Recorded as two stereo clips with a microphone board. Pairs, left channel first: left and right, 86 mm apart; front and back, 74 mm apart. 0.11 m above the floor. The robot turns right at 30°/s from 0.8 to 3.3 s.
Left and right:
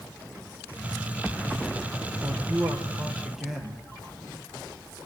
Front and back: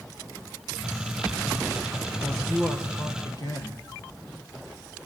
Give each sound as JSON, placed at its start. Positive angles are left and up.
{"t": 2.2, "sound": "a man speaking", "azimuth_deg": -40, "distance_m": 3.0}